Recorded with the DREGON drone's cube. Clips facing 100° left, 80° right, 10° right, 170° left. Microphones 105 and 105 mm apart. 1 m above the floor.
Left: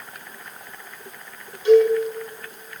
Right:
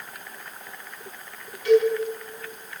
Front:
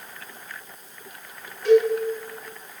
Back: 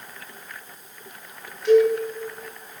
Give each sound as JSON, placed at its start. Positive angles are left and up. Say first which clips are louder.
{"t": 1.6, "sound": "a cowbell", "louder": "left 4 dB, back 1 dB", "azimuth_deg": 35, "distance_m": 6.0}